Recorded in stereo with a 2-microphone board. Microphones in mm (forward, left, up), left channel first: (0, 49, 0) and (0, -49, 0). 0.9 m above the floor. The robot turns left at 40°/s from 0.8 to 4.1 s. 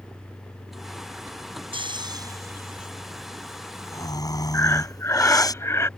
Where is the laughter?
I don't hear laughter.